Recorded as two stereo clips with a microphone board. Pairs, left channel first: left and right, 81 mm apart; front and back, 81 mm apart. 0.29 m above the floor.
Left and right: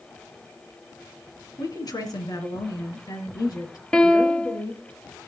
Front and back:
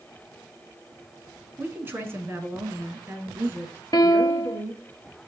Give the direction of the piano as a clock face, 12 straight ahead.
12 o'clock.